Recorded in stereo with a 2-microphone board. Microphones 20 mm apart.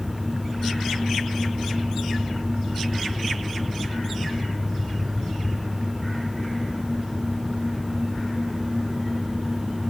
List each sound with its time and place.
Only background noise.